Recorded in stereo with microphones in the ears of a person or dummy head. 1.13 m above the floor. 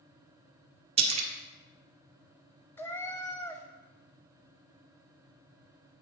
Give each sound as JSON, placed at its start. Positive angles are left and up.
{"t": 1.0, "sound": "a splash", "side_deg": -25, "distance_m": 0.7}
{"t": 2.8, "sound": "a cat meowing", "side_deg": 15, "distance_m": 0.6}